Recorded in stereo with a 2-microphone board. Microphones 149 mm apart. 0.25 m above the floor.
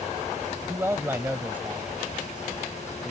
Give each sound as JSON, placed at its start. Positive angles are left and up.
{"t": 0.7, "sound": "a man speaking", "side_deg": -15}